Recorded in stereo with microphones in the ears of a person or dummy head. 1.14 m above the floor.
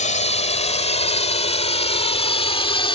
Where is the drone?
35° left (ahead or behind); by 3.0 s 25° left (ahead or behind).